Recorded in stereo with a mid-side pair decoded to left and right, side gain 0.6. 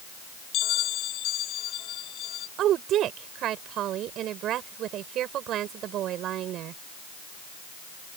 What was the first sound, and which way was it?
A bell, 60° left.